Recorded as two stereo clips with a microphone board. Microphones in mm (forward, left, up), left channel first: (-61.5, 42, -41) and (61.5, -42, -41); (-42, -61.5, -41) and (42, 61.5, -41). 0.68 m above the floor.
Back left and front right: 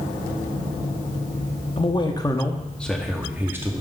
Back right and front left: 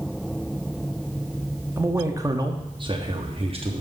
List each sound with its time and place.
1.8 s a man speaking: 120° left, 1.0 m; by 3.8 s 30° left, 1.2 m